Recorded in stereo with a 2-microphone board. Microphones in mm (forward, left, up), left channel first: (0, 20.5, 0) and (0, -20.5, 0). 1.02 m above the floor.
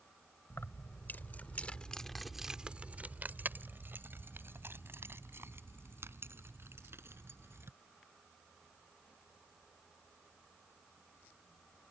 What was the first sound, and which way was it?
Keys jangling, 60° left (ahead or behind).